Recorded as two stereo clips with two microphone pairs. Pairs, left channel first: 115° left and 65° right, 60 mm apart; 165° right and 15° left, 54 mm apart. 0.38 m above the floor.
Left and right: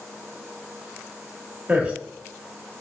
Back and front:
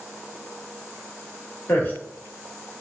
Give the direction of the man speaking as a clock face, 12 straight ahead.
4 o'clock.